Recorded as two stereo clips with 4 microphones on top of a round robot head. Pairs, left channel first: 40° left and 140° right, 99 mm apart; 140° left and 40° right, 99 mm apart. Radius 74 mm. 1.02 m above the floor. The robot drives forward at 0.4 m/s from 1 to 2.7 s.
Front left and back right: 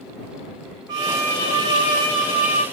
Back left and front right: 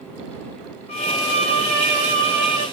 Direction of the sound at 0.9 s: 170° left.